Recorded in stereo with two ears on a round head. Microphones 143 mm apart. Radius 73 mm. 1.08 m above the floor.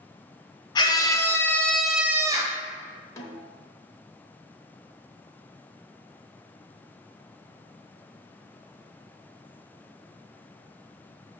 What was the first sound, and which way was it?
A scream, 25° left (ahead or behind).